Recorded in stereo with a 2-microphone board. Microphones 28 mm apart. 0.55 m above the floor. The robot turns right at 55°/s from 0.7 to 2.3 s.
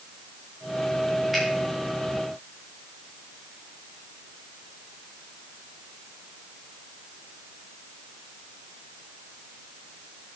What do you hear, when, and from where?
1.3 s a finger snap: centre (ahead or behind), 6 m; by 1.4 s 5° left (ahead or behind), 6 m